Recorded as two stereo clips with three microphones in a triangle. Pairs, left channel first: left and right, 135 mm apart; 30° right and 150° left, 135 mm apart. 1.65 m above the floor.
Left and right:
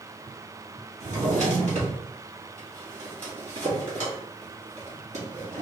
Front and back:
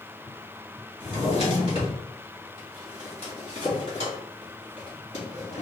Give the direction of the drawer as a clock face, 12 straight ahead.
2 o'clock.